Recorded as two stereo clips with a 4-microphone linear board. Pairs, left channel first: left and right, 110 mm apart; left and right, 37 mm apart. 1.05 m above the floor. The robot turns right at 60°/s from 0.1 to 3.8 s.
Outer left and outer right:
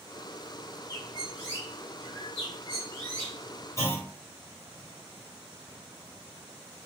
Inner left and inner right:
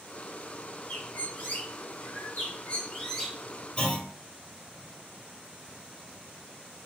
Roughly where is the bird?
Ahead left.